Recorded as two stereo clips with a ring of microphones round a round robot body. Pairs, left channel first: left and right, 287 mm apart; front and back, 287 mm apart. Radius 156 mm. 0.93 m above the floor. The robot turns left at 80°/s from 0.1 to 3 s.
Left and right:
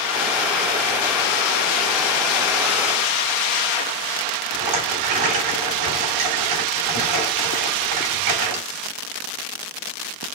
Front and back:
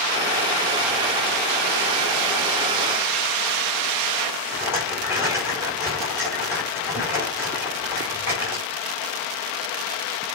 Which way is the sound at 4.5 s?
95° right.